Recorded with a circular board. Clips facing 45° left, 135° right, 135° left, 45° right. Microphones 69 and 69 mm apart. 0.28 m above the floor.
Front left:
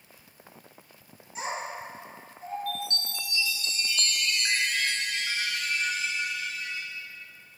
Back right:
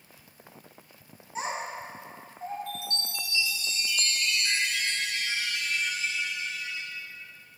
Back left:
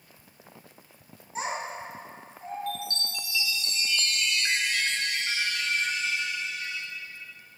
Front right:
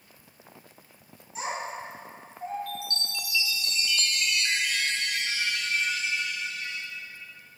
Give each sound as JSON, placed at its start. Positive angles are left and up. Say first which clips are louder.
{"t": 1.4, "sound": "a child speaking", "louder": "back right 1 dB, back left 1 dB", "azimuth_deg": 180, "distance_m": 1.1}
{"t": 2.7, "sound": "a chime", "louder": "front left 3 dB, back left 2 dB", "azimuth_deg": 80, "distance_m": 0.5}